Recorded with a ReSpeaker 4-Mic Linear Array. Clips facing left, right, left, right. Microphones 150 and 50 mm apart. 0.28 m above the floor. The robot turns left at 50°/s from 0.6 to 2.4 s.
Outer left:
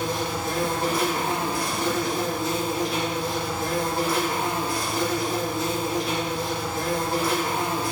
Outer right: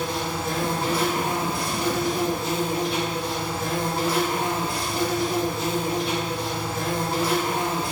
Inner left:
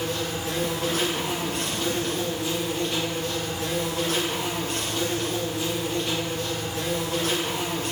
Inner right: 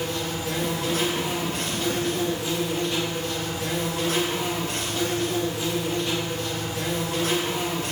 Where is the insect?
65° left, 1.8 m; by 7.9 s 25° right, 1.8 m.